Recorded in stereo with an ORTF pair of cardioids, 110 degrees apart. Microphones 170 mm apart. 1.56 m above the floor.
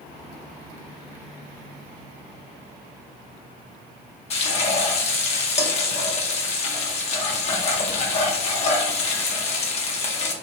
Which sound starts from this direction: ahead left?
Frying, at 4.3 s.